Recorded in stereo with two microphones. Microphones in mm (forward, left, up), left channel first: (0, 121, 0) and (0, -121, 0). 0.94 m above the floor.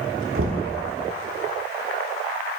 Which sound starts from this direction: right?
Knocking, at 0.3 s.